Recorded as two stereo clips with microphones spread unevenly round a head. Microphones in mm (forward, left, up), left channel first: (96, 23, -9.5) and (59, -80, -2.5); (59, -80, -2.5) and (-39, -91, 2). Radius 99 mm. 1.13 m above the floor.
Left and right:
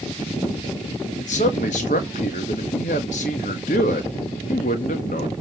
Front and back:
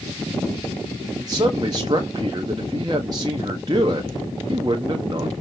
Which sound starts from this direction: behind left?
A man speaking, at 1.2 s.